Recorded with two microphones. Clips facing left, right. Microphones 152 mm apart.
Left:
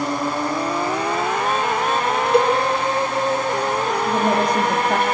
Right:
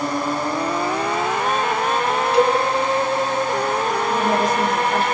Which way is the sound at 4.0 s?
60° left (ahead or behind).